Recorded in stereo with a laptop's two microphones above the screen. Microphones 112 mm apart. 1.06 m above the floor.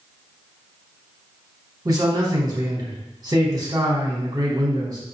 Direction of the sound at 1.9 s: 35° right (ahead or behind).